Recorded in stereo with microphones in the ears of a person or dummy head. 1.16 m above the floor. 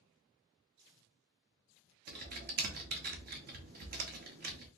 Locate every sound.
2.1 s typing on a keyboard: 50° right (ahead or behind), 0.7 m